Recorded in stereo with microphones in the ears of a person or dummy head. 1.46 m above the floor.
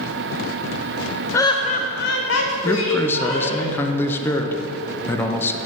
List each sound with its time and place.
1.3 s laughter: 20° left (ahead or behind), 0.5 m; by 3.6 s 80° left, 1.6 m
2.6 s a man speaking: 10° left (ahead or behind), 0.6 m